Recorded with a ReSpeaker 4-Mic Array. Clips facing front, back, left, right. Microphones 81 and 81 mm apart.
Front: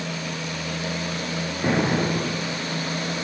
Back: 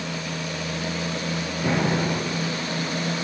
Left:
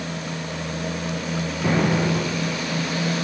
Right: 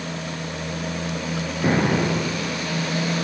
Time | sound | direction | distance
1.6 | an explosion | 45° right | 3.5 m